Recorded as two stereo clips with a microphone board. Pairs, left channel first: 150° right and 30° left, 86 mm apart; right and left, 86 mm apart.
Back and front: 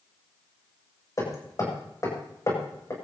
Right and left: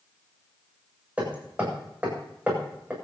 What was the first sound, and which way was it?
Hammering, 160° left.